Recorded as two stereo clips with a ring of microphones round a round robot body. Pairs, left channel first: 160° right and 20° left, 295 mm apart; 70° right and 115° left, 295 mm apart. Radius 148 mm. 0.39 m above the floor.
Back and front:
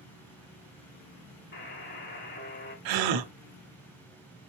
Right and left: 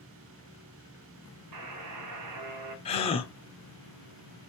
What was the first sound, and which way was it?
A buzzer, 145° left.